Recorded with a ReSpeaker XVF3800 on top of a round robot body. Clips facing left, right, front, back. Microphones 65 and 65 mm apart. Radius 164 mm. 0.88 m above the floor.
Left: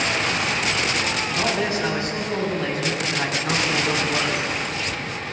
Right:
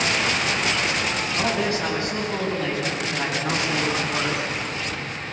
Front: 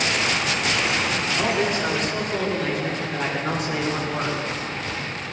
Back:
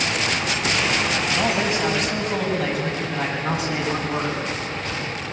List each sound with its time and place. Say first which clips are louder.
1.3 s a man speaking: even, front 1 dB; 165° left, 6.5 m; by 4.5 s 160° left, 8 m